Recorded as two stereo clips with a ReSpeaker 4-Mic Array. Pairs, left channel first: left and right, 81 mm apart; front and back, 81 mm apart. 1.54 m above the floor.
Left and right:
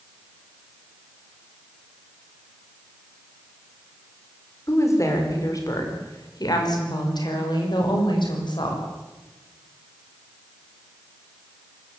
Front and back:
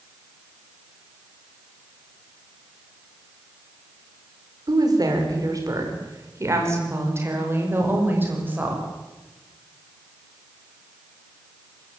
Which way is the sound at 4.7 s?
145° left.